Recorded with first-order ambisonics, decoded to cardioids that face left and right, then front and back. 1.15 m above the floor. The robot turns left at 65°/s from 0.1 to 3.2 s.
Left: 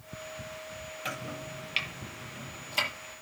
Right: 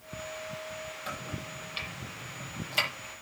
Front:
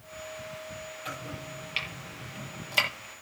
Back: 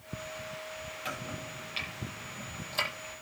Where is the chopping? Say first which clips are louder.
Left 1 dB, back 1 dB; 110° left, 7 m; by 2.9 s 10° right, 7 m.